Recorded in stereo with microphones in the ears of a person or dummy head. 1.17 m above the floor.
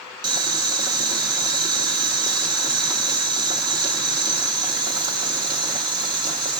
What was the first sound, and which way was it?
Boiling, 15° right (ahead or behind).